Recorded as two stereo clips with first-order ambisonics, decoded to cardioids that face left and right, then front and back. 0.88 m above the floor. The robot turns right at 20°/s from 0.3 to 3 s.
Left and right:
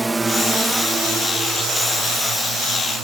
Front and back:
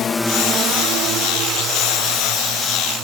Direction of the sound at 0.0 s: 15° right.